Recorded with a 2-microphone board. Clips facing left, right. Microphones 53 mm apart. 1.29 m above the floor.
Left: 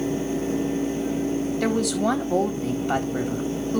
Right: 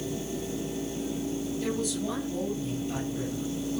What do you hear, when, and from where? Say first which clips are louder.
1.6 s a woman speaking: left 9 dB; 85° left, 4 m